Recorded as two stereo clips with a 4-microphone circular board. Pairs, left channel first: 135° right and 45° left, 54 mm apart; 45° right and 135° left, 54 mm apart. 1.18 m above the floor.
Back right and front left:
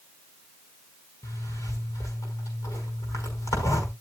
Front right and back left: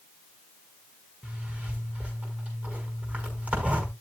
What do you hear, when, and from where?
1.2 s a zipper: 160° right, 5.5 m